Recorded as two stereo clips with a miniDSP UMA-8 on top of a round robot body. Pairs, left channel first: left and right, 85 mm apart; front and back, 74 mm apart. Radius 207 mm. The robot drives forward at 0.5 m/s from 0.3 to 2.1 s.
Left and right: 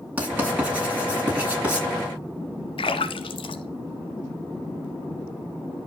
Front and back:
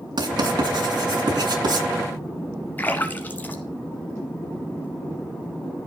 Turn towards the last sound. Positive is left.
turn(degrees=70)